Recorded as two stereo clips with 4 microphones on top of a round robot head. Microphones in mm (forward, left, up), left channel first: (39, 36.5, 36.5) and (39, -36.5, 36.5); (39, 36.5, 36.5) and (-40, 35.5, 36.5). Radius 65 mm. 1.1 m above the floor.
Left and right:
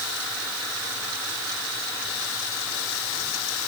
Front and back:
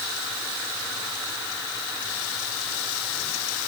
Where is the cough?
I don't hear a cough.